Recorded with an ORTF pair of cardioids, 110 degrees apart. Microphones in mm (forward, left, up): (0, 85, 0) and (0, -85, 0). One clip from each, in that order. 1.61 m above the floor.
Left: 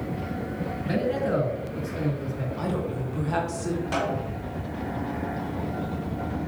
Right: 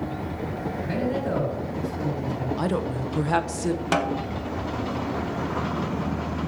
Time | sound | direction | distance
0.8 | a man speaking | 15° left | 3.5 m
2.6 | a woman speaking | 50° right | 0.8 m
3.9 | a snare drum | 70° right | 0.9 m